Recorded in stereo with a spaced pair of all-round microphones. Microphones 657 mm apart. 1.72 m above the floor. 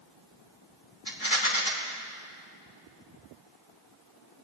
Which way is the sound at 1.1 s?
30° left (ahead or behind).